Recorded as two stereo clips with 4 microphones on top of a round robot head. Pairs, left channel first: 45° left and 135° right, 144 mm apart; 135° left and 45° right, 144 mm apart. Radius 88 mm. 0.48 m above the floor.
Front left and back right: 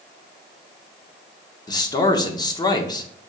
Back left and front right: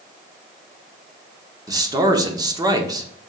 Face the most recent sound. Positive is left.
turn(degrees=0)